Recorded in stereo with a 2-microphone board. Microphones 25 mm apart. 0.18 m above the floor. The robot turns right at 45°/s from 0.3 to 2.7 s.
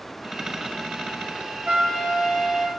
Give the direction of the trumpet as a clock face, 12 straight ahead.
3 o'clock.